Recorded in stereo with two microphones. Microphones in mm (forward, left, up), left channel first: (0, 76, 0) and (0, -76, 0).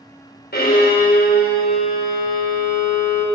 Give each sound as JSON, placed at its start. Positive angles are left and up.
{"t": 0.5, "sound": "a violin", "side_deg": 75, "distance_m": 3.0}